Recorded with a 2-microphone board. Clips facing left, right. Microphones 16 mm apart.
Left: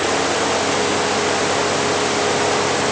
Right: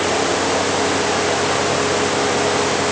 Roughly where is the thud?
I don't hear a thud.